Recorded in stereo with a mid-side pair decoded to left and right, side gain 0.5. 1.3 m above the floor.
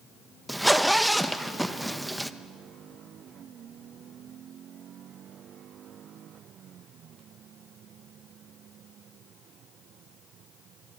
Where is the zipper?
5° right, 1.2 m.